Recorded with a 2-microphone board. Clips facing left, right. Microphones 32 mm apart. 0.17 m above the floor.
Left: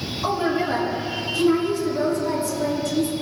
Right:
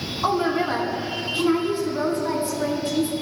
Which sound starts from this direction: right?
A woman speaking, at 0.2 s.